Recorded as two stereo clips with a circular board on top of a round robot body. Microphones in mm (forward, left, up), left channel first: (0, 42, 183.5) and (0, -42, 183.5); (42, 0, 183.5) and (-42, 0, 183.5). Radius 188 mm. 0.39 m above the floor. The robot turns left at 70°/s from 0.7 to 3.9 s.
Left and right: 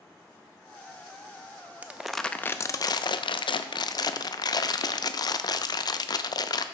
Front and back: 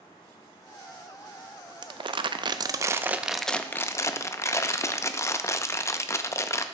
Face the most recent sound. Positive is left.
turn(degrees=55)